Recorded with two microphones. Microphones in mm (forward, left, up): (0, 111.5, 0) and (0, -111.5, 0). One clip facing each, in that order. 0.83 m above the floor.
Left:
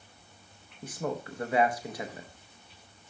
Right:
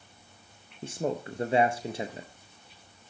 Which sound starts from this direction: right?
A man speaking, at 0.8 s.